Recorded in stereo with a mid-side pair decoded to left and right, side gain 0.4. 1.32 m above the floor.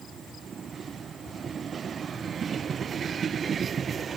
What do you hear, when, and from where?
Only background noise.